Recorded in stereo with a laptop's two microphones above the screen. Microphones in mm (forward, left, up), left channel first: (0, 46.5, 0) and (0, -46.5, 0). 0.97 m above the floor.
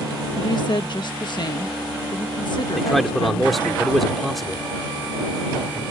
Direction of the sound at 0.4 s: 55° left (ahead or behind).